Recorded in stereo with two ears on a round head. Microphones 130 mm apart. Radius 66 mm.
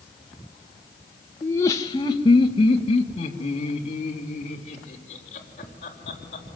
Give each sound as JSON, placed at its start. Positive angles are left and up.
{"t": 1.4, "sound": "laughter", "side_deg": 15, "distance_m": 1.4}